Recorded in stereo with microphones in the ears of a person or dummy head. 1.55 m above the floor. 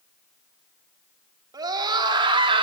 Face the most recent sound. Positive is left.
turn(degrees=-35)  # may be behind; listen again after turning